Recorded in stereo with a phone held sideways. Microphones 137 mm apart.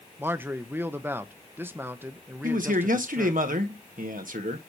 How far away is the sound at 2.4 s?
About 1.4 m.